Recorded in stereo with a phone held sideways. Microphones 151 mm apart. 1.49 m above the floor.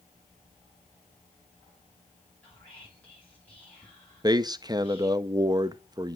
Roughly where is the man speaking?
Right.